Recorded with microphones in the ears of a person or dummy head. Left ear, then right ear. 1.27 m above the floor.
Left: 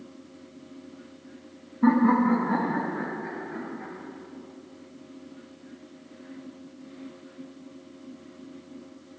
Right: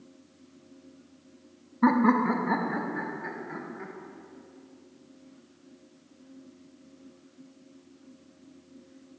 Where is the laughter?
80° right, 0.9 m; by 3.9 s 85° right, 2.5 m.